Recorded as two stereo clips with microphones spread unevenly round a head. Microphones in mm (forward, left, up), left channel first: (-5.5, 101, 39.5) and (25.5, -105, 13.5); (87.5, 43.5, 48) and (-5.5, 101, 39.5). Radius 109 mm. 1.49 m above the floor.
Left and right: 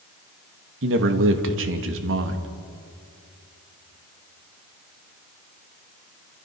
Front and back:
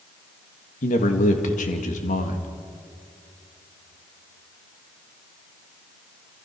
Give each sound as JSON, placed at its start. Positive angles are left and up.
{"t": 0.8, "sound": "a man speaking", "azimuth_deg": -50, "distance_m": 2.5}